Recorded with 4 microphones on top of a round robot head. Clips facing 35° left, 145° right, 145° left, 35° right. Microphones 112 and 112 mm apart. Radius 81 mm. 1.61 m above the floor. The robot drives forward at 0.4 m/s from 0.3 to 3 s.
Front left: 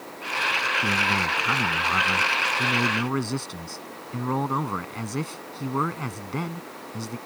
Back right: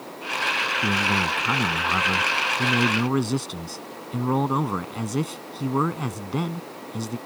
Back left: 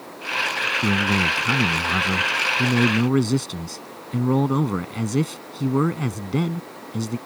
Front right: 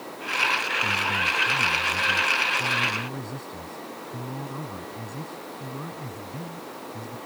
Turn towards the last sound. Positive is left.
turn(degrees=140)